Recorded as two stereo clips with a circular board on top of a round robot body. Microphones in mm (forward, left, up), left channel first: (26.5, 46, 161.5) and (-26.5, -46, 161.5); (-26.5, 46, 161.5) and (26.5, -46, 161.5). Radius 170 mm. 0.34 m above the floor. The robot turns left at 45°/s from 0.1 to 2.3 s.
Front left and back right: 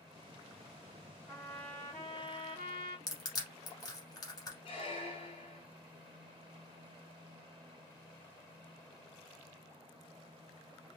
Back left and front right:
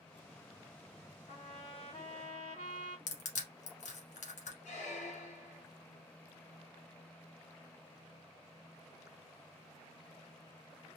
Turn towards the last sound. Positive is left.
turn(degrees=100)